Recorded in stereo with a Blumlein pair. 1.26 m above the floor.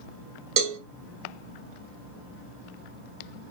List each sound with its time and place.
0.6 s a cowbell: 40° right, 0.8 m